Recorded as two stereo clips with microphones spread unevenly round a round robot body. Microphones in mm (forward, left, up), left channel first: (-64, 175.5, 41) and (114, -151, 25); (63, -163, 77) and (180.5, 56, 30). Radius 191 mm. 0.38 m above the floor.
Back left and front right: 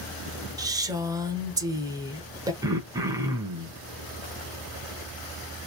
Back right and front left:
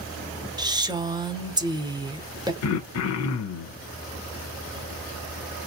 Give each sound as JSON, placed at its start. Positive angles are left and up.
{"t": 0.6, "sound": "a woman speaking", "azimuth_deg": 10, "distance_m": 1.0}
{"t": 2.6, "sound": "throat clearing", "azimuth_deg": -140, "distance_m": 0.8}